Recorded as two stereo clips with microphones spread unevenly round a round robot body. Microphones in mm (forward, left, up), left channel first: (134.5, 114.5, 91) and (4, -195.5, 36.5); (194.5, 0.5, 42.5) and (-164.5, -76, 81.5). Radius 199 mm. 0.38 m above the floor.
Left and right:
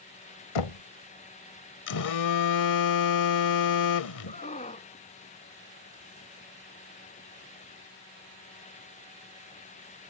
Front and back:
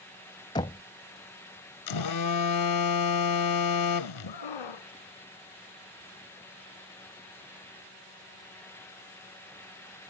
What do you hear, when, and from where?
0.6 s knocking: 90° left
1.9 s a phone buzzing: 35° left
4.3 s a scream: straight ahead